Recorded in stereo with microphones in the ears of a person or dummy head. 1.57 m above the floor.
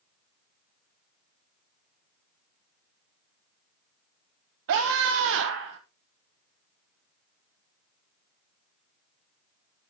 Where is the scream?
60° right (ahead or behind), 1.1 m; by 5.8 s 65° right (ahead or behind), 1.8 m.